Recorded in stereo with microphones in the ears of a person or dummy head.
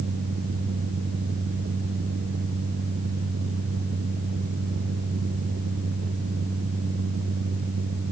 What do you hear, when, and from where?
Only background noise.